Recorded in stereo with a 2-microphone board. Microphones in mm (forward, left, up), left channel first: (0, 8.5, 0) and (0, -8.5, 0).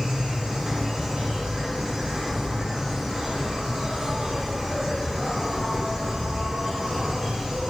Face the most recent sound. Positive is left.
turn(degrees=-35)  # may be behind; listen again after turning